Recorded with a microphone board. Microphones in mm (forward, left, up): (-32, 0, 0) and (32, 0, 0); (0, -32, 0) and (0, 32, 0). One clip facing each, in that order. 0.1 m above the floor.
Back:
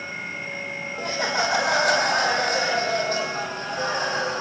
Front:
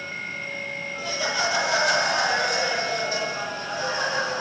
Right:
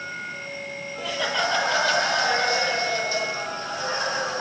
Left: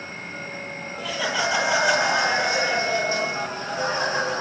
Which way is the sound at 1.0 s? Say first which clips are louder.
Back 2 dB, even; 175° right.